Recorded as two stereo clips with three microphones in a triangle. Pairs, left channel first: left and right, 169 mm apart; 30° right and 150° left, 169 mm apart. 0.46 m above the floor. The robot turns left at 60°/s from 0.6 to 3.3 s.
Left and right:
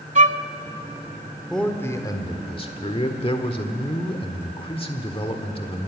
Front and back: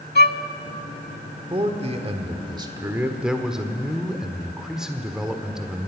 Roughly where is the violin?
Ahead right.